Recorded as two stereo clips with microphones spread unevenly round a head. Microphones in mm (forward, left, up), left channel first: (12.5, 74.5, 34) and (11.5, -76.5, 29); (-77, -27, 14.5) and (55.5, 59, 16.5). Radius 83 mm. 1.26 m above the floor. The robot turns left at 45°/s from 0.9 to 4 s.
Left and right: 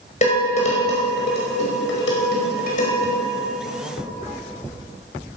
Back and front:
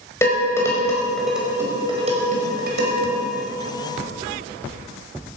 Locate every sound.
0.2 s dishes clattering: 140° left, 5 m; by 3.2 s 35° left, 5 m